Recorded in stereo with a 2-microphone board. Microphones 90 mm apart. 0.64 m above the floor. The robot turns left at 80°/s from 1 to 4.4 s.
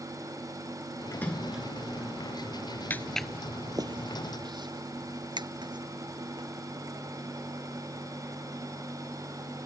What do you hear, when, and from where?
1.1 s a splash: 25° left; by 1.6 s 15° right
2.9 s footsteps: 25° left (ahead or behind); by 6.5 s 55° right (ahead or behind)